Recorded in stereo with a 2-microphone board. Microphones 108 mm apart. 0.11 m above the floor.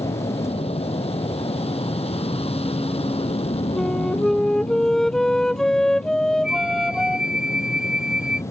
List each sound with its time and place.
0.0 s an aircraft: 65° left (ahead or behind)
3.8 s a flute: 5° left (ahead or behind)
6.4 s a flute: 5° right (ahead or behind)